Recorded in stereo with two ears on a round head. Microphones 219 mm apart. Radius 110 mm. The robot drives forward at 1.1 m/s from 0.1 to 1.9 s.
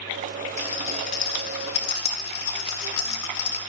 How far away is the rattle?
About 3.5 m.